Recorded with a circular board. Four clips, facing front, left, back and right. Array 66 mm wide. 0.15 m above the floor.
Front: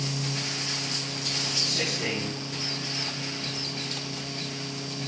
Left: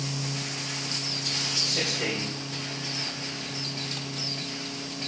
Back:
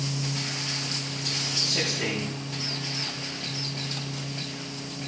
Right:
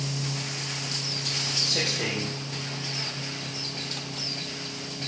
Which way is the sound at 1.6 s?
110° right.